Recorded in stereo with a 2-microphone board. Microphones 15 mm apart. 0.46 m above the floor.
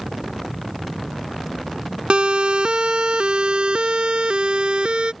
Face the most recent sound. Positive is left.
turn(degrees=-80)